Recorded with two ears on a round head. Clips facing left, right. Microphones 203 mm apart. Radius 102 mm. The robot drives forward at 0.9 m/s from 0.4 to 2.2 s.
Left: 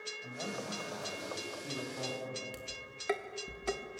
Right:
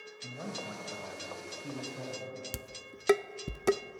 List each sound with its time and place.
0.2 s a man speaking: 30° right (ahead or behind), 3 m; by 2.4 s 20° right (ahead or behind), 4.5 m
2.5 s dishes clattering: 60° right (ahead or behind), 0.6 m